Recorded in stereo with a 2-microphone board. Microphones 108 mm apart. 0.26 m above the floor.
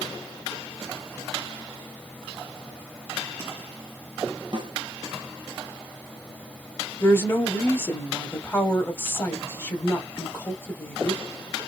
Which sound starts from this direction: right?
A snare drum, at 4.5 s.